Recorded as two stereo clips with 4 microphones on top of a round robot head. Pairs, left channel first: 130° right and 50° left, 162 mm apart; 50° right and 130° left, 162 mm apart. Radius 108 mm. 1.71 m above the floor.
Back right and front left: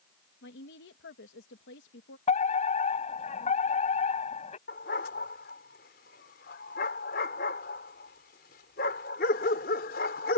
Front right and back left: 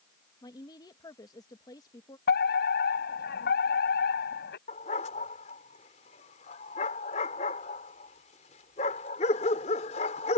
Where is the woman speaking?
120° right.